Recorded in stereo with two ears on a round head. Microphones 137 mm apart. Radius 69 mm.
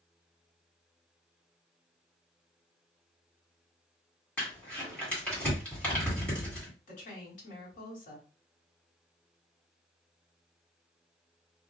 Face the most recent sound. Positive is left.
turn(degrees=50)  # may be behind; listen again after turning